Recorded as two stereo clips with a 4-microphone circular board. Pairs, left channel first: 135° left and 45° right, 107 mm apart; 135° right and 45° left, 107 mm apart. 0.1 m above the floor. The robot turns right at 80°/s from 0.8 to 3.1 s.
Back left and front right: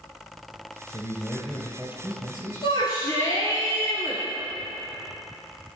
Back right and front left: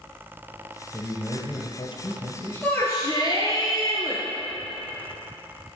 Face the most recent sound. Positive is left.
turn(degrees=-170)